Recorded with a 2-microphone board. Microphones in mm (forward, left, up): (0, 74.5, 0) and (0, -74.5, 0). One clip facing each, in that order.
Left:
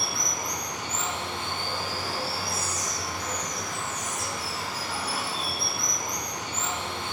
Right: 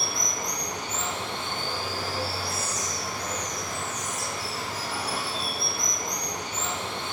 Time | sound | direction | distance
0.0 | running water | 85° right | 3.5 m